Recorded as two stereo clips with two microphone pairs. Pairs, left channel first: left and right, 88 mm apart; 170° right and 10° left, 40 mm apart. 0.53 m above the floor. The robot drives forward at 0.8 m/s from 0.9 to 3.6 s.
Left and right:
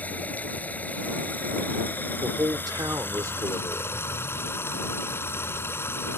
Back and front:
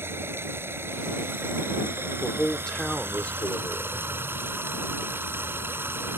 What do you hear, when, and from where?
0.0 s running water: 20° left; by 6.2 s 25° left
2.2 s a man speaking: 85° right; by 4.1 s 145° right